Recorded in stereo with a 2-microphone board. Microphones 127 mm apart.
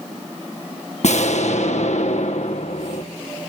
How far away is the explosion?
About 1.5 m.